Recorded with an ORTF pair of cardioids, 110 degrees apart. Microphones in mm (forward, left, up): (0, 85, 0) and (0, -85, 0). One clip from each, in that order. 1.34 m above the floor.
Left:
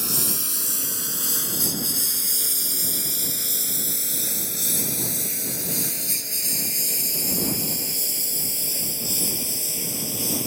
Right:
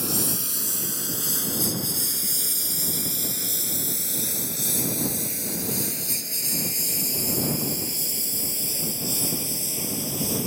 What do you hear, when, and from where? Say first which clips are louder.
0.0 s a lawn mower: left 1 dB; 35° left; by 10.5 s 25° left